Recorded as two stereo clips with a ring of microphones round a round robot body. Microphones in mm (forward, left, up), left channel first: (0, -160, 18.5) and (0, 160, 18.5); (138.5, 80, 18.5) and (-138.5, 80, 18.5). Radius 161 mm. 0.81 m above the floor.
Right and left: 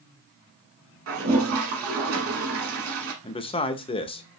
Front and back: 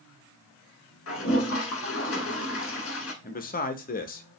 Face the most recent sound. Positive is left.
turn(degrees=-30)